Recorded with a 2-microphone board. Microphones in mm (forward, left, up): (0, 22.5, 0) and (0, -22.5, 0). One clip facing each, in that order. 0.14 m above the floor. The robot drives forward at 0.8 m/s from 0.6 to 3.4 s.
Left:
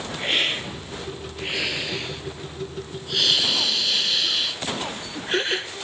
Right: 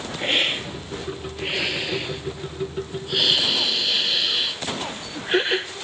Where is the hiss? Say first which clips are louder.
Right 1 dB; 5° right (ahead or behind), 3.5 m; by 5.7 s 10° right (ahead or behind), 1.7 m.